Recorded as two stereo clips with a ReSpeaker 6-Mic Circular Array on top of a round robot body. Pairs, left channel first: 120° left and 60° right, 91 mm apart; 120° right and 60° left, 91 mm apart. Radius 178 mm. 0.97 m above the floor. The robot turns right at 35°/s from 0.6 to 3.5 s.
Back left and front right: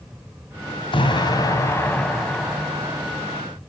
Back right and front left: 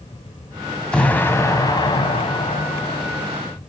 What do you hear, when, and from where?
0.9 s an explosion: 160° left, 1.8 m; by 3.4 s 115° right, 1.8 m